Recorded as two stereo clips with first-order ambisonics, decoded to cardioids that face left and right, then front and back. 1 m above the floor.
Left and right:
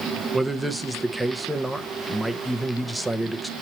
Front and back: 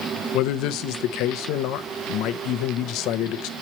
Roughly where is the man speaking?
Ahead.